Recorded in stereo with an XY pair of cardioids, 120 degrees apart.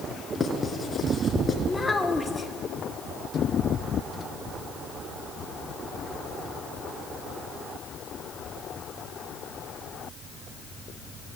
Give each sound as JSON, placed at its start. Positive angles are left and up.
{"t": 0.3, "sound": "writing", "azimuth_deg": 20, "distance_m": 4.5}
{"t": 1.7, "sound": "a child speaking", "azimuth_deg": 15, "distance_m": 2.5}